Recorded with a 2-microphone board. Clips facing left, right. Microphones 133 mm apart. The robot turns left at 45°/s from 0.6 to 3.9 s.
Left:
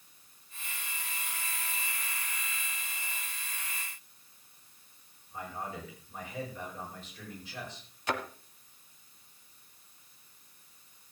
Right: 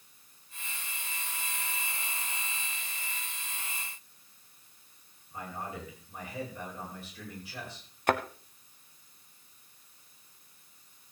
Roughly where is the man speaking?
Centre.